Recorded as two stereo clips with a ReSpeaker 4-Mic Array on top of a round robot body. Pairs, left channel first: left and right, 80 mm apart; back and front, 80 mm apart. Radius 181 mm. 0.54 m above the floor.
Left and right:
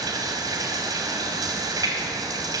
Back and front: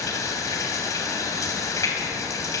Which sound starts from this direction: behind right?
Running water, at 0.0 s.